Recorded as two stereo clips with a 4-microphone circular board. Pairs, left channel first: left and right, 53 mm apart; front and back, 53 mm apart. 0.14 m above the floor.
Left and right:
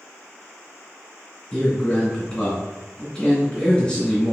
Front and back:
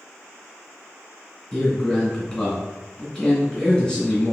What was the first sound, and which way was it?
A man speaking, 45° left.